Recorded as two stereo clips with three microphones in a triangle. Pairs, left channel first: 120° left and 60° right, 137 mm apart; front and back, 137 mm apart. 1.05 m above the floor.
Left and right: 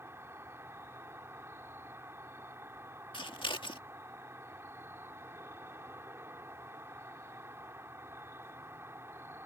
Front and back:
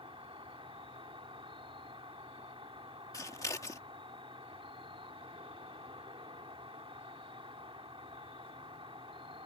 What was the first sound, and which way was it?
An insect, 130° right.